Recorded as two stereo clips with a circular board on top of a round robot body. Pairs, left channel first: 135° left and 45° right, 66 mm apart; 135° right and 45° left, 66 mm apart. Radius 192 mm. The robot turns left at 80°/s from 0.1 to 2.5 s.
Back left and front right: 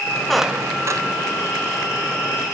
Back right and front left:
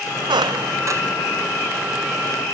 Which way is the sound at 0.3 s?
50° left.